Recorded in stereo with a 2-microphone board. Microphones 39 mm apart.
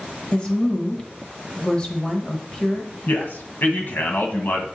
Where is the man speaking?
55° left (ahead or behind), 1.5 m.